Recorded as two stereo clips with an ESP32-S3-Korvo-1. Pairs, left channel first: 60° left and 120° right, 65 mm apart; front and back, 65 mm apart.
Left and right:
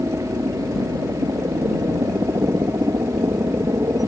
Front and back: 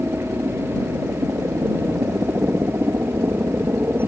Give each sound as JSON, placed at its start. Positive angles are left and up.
{"t": 0.0, "sound": "a helicopter", "azimuth_deg": -130}